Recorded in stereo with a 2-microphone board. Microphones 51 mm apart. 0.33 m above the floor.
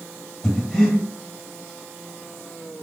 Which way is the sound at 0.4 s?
5° left (ahead or behind).